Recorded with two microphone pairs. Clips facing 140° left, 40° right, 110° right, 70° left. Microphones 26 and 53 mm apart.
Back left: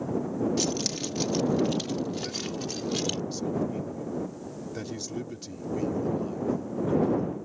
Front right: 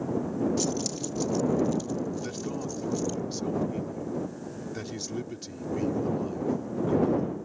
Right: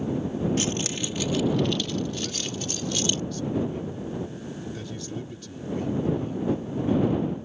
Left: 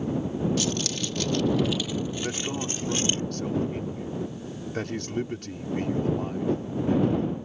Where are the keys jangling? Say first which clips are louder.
Back left 1 dB, even; 165° right; by 3.2 s 125° left.